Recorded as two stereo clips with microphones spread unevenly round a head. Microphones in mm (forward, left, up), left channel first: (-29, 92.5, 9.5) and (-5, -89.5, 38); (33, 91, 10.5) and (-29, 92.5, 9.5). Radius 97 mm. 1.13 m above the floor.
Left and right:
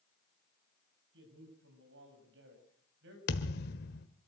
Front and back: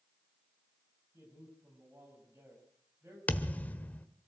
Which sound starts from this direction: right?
A man speaking, at 1.1 s.